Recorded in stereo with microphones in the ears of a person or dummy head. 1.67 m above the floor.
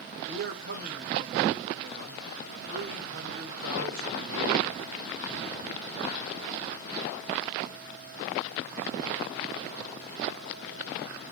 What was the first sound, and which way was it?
A man speaking, 50° right (ahead or behind).